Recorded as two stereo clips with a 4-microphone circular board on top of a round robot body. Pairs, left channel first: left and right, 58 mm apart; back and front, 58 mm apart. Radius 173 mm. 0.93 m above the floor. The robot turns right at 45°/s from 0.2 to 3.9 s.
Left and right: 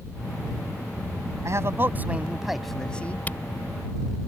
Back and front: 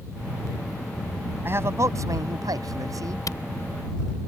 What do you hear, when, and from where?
1.4 s a man speaking: 55° right; by 3.2 s 25° left
3.3 s a camera shutter: 155° left; by 3.4 s 160° left